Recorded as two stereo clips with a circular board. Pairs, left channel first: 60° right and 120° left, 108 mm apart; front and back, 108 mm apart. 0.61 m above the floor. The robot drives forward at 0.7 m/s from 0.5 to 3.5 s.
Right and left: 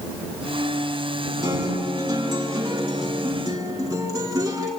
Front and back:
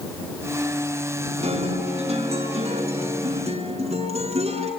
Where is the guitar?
175° left, 6.5 m.